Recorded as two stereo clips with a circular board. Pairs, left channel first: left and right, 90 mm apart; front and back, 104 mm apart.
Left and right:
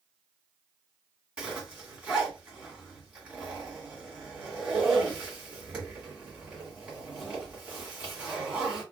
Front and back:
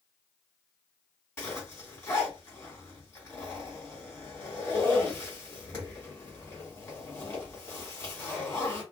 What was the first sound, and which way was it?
A zipper, 30° right.